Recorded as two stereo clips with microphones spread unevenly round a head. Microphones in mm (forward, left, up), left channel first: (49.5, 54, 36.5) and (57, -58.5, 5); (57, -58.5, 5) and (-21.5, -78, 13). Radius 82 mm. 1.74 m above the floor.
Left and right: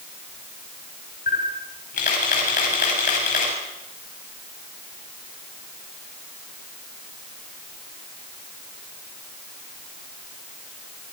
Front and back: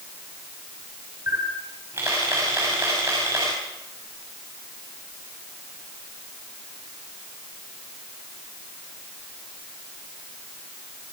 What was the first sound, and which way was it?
A camera shutter, 120° left.